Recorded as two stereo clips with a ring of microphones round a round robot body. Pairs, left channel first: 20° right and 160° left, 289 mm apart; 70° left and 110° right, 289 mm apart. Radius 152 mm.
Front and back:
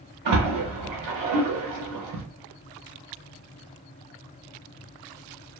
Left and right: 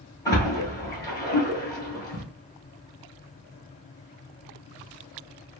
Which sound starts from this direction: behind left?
A splash, at 0.2 s.